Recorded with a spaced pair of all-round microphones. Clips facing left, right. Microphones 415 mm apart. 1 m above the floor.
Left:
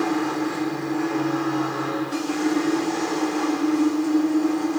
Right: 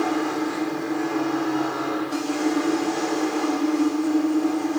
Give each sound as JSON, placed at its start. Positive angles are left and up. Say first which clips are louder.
{"t": 0.0, "sound": "a machine running", "louder": "even", "side_deg": 35, "distance_m": 3.0}